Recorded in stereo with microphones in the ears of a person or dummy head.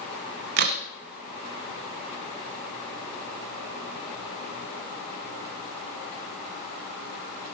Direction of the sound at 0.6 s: 55° right (ahead or behind).